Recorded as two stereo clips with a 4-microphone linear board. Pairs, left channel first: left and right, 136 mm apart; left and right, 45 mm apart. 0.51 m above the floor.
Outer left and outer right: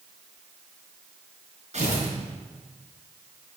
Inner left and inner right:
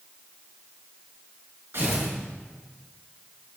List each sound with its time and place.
1.7 s tearing paper: 55° right (ahead or behind), 5 m